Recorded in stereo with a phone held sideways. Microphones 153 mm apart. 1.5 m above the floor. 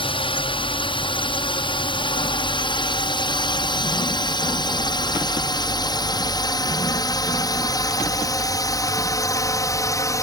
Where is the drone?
35° left (ahead or behind); by 10.2 s 20° left (ahead or behind).